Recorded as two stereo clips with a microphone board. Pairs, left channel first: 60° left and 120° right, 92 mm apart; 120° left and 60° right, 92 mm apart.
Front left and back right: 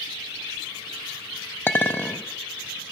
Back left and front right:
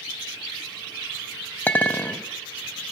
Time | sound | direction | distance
1.7 | a clink | 80° left | 0.6 m